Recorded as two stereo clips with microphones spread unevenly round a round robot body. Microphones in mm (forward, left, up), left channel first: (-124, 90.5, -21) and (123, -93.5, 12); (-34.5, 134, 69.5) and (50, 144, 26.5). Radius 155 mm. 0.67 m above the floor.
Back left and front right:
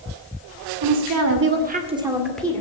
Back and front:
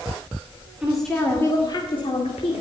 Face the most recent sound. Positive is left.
turn(degrees=-140)